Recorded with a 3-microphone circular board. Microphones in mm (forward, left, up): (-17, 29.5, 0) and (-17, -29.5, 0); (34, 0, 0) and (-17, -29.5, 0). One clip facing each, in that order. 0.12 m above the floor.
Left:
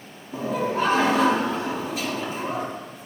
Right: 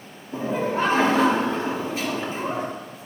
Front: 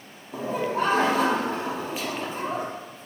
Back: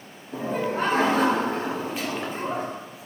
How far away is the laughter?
About 1.7 m.